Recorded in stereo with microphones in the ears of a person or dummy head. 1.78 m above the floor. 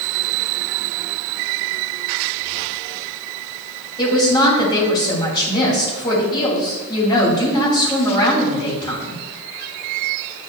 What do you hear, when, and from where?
4.0 s a woman speaking: 25° left (ahead or behind), 2.5 m